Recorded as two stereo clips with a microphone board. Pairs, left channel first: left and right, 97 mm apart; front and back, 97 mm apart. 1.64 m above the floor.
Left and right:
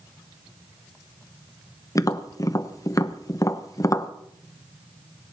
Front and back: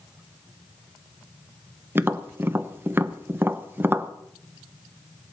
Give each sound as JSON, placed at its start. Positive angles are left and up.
{"t": 1.9, "sound": "tapping", "azimuth_deg": 125, "distance_m": 0.8}